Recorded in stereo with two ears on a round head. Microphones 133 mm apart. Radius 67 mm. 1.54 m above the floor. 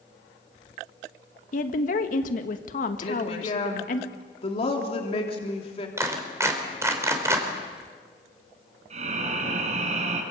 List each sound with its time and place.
1.5 s a woman speaking: 60° left (ahead or behind), 1.7 m
3.0 s a woman speaking: 45° left (ahead or behind), 3 m
6.0 s a clap: 20° right (ahead or behind), 4 m
8.9 s breathing: 50° right (ahead or behind), 5 m